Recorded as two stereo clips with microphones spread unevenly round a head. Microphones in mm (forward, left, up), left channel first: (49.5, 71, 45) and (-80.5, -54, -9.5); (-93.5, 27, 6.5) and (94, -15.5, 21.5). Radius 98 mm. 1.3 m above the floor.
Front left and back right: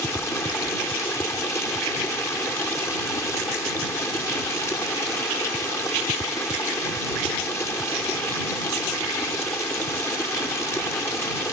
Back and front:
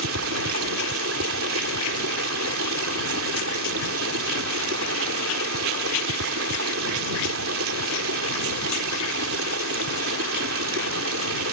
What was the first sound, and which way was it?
Running water, 35° right.